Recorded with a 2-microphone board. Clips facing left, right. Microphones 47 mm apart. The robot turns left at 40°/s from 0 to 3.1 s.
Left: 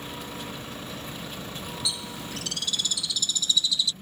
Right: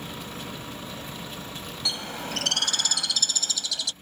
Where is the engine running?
110° right; by 4.0 s 125° left.